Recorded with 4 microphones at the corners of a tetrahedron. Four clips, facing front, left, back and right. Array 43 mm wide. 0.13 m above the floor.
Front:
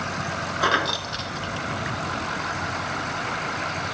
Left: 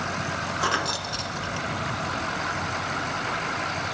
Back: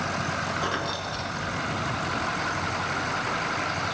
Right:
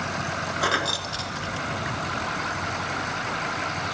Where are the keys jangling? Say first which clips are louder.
Right 2 dB, front 6 dB; 15° right, 1.2 m.